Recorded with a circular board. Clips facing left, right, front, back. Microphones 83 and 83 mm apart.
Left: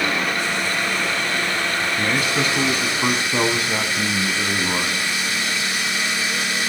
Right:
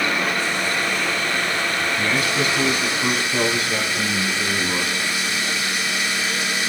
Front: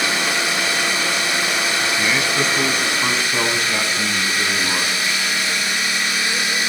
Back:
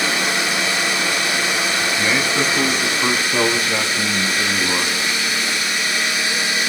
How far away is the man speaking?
About 1.3 m.